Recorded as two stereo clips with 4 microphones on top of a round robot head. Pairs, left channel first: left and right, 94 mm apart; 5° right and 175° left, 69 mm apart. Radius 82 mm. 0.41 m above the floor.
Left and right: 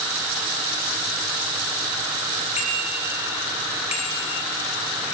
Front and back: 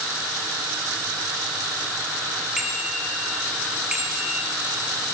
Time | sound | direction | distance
2.6 | a bicycle bell | 90° left | 7.5 m